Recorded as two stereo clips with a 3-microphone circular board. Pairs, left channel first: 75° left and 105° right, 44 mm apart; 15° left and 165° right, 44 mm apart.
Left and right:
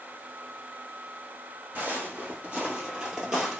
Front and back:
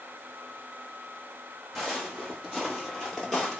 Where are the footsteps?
70° right, 1.6 m; by 3.6 s 40° right, 1.0 m.